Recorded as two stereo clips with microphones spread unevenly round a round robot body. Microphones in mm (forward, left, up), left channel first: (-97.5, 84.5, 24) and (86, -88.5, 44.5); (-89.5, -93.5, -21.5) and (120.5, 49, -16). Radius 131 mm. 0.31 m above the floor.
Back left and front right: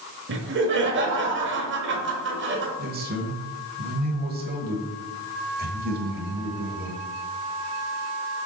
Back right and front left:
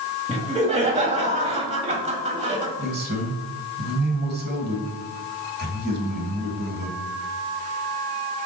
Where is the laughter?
20° right, 1.7 m.